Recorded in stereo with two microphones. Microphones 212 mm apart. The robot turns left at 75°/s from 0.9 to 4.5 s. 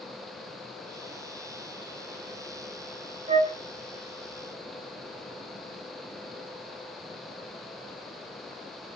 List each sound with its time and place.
3.3 s a flute: 30° right (ahead or behind), 0.6 m; by 3.6 s 20° right (ahead or behind), 0.6 m